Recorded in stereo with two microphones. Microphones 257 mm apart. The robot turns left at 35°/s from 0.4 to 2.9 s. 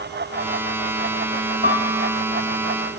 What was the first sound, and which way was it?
A piano, 35° right (ahead or behind).